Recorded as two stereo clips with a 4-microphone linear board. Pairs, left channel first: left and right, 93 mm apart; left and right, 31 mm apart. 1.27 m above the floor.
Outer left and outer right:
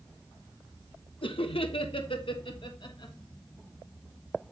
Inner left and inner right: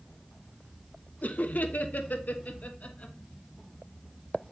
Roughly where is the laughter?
Left.